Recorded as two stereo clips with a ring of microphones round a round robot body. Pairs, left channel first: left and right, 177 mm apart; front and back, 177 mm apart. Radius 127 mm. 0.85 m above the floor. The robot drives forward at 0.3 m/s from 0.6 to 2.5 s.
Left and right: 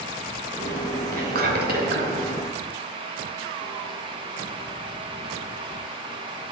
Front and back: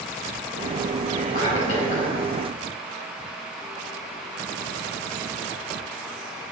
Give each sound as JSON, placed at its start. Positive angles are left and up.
{"t": 1.1, "sound": "whispering", "azimuth_deg": -60, "distance_m": 3.0}